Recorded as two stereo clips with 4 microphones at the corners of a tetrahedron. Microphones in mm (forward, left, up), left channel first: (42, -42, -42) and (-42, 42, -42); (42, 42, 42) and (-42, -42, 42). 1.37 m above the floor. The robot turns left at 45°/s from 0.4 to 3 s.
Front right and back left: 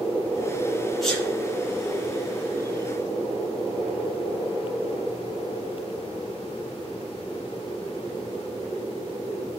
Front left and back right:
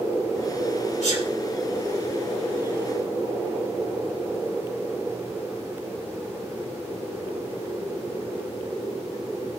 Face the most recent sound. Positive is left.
turn(degrees=-45)